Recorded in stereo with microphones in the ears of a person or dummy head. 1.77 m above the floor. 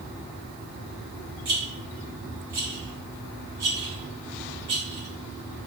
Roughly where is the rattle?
Centre.